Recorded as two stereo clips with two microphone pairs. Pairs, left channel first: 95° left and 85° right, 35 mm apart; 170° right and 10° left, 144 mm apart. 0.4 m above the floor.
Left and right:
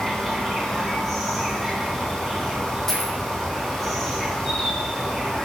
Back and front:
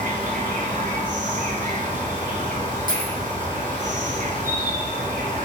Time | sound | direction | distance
0.0 | an insect | 5° left | 1.9 m
2.9 | a dropped coin | 15° left | 2.5 m